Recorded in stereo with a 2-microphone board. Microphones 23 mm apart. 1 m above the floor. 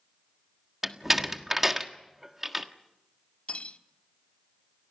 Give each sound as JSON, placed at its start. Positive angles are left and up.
{"t": 0.8, "sound": "a door slam", "side_deg": -15, "distance_m": 1.4}
{"t": 3.5, "sound": "cutlery clinking", "side_deg": 80, "distance_m": 1.3}